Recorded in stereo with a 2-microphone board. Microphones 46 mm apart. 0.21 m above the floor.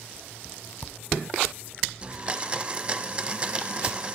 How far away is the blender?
About 1.0 m.